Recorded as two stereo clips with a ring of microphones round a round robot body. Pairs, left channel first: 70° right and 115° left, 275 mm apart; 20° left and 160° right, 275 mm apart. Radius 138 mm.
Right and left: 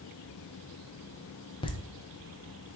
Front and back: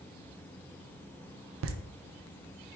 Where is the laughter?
135° right, 0.5 m.